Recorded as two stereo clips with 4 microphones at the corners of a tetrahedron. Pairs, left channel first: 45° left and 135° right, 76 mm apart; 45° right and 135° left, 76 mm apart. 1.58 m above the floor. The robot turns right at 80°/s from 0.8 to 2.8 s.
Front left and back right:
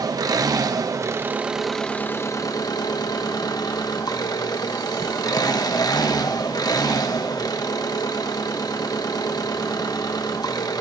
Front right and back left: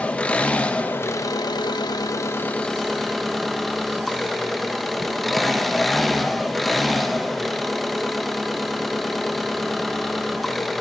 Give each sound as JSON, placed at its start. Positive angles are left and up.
{"t": 0.0, "sound": "an engine running", "azimuth_deg": -115, "distance_m": 1.1}